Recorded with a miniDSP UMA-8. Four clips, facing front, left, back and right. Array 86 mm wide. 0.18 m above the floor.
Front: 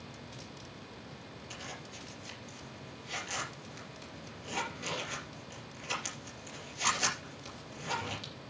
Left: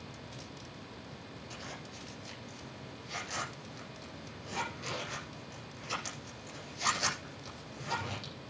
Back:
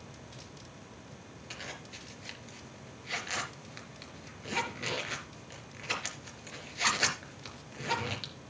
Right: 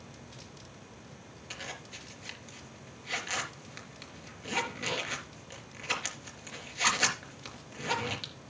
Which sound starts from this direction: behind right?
A zipper, at 1.5 s.